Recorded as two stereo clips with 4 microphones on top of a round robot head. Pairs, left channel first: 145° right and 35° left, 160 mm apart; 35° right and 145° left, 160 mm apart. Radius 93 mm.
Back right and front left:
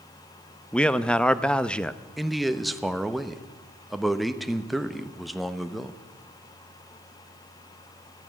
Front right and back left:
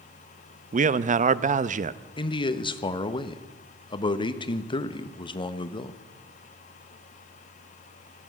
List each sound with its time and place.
0.7 s a man speaking: 130° left, 0.6 m
2.2 s a man speaking: 55° right, 0.9 m